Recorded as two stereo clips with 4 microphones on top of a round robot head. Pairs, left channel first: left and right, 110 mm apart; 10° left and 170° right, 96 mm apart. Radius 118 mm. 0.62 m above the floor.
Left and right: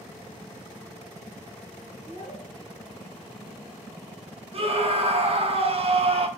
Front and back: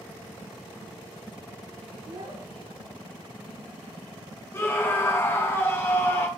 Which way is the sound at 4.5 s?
60° right.